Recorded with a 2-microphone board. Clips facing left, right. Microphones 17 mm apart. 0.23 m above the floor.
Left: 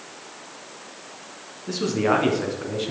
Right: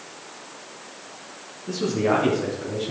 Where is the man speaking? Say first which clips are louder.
Left 1 dB; 35° left (ahead or behind), 3 m; by 2.9 s 45° left (ahead or behind), 2.5 m.